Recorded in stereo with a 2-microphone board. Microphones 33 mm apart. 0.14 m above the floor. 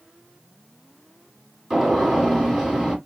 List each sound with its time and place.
1.7 s a gunshot: centre (ahead or behind), 1.8 m